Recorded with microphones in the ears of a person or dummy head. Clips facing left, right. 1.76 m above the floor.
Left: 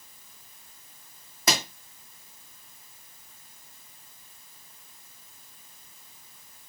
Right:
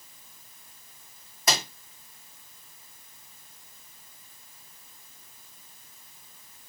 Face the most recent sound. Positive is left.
turn(degrees=60)  # may be behind; listen again after turning